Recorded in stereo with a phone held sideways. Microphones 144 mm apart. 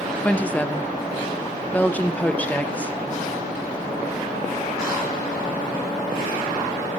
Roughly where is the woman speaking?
Centre.